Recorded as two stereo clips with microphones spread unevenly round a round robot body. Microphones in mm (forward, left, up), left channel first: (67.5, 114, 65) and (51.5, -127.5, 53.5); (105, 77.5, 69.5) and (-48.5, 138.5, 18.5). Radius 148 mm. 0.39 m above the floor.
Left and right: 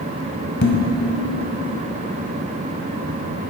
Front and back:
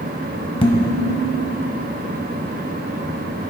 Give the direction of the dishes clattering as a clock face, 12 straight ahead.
11 o'clock.